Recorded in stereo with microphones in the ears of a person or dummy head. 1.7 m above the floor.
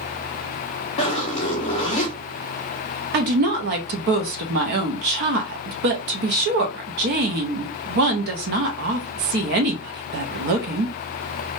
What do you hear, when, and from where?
1.0 s a zipper: 35° left (ahead or behind), 0.8 m
3.1 s a woman speaking: 45° right (ahead or behind), 0.5 m